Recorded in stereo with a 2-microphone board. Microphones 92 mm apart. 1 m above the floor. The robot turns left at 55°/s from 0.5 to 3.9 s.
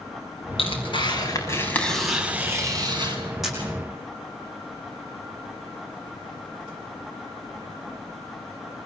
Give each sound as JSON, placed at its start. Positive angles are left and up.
{"t": 0.6, "sound": "tearing paper", "azimuth_deg": 80, "distance_m": 6.0}
{"t": 3.4, "sound": "a camera shutter", "side_deg": 0, "distance_m": 9.0}